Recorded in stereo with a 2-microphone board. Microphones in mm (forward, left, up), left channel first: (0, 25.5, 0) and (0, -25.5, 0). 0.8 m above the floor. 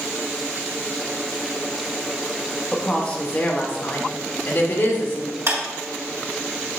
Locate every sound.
2.7 s a woman speaking: 15° left (ahead or behind), 1.2 m; by 5.4 s 55° left (ahead or behind), 1.7 m
5.5 s a clap: 65° right (ahead or behind), 2.5 m